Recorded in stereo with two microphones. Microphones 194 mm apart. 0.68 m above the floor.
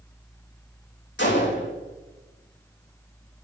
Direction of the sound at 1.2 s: 65° left (ahead or behind).